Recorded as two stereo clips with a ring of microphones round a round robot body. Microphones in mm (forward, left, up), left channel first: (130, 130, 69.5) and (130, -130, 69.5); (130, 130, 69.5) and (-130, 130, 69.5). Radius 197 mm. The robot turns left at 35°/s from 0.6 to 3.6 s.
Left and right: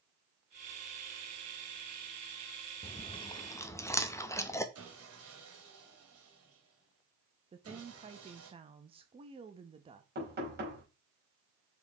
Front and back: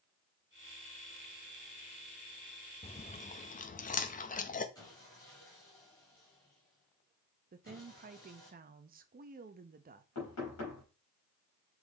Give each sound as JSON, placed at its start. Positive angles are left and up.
{"t": 2.8, "sound": "chewing", "azimuth_deg": 45, "distance_m": 0.8}
{"t": 4.8, "sound": "sawing", "azimuth_deg": -75, "distance_m": 2.0}
{"t": 7.5, "sound": "a woman speaking", "azimuth_deg": -145, "distance_m": 0.6}
{"t": 10.2, "sound": "knocking", "azimuth_deg": -40, "distance_m": 3.5}